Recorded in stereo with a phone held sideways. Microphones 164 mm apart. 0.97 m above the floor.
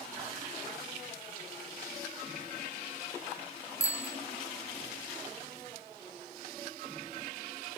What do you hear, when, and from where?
3.8 s a bicycle bell: 20° left (ahead or behind)